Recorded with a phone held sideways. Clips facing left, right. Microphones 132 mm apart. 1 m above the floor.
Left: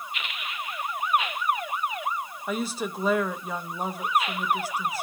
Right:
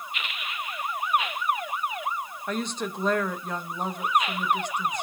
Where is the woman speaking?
5° left (ahead or behind), 0.8 m.